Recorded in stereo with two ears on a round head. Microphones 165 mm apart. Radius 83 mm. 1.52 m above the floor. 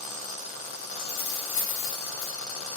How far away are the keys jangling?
About 3 m.